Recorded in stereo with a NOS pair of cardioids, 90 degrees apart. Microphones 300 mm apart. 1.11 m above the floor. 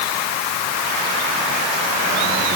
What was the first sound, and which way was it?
Only background noise.